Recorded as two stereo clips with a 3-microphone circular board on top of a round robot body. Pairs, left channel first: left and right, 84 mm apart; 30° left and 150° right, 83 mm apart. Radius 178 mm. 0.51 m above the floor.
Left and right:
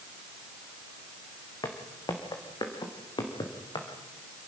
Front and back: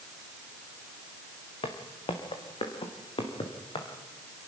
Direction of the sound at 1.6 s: 45° left.